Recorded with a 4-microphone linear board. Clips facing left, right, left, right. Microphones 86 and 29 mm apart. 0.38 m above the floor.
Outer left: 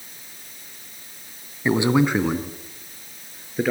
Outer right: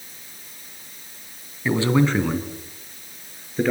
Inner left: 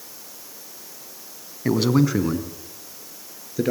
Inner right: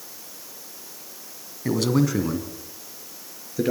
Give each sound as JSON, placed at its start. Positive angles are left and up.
{"t": 1.6, "sound": "a man speaking", "side_deg": 20, "distance_m": 2.5}